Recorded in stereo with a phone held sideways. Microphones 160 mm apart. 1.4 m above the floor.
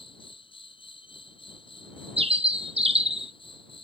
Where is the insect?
35° left (ahead or behind).